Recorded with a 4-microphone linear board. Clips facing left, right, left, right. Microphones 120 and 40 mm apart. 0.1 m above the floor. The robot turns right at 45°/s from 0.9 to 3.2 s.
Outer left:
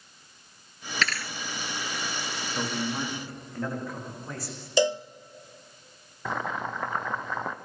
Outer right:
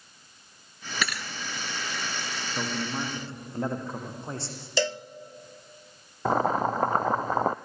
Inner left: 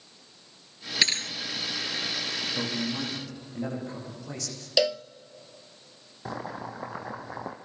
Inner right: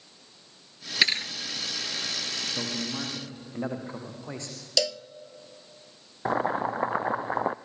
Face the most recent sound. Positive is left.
turn(degrees=-40)  # may be behind; listen again after turning